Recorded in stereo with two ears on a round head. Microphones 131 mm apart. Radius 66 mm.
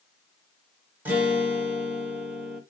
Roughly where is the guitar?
Centre.